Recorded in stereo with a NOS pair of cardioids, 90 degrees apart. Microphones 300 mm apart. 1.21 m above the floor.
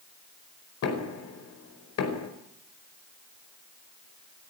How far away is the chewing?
No chewing in this recording.